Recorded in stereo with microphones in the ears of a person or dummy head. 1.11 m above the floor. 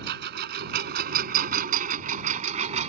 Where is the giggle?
I don't hear a giggle.